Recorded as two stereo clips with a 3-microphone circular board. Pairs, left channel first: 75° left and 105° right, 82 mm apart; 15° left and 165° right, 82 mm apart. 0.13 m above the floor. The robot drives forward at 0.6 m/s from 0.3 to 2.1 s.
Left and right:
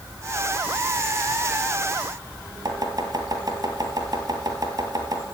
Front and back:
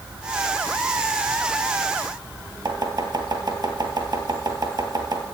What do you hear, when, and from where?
2.6 s chopping: 140° right, 2 m